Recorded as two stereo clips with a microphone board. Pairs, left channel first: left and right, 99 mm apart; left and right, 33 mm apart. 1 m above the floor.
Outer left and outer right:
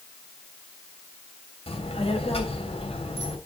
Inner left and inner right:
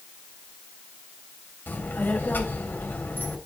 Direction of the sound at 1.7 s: 80° left.